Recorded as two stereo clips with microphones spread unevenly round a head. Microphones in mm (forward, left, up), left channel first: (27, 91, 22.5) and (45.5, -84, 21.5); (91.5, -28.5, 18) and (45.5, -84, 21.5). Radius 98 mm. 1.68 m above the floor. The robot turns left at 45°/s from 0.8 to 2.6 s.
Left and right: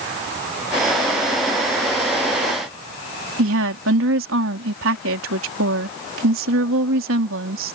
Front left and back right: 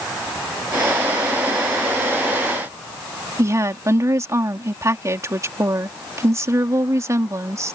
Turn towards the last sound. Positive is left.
turn(degrees=-85)